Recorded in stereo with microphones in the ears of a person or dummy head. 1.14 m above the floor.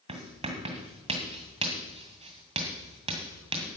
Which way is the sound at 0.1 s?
30° right (ahead or behind).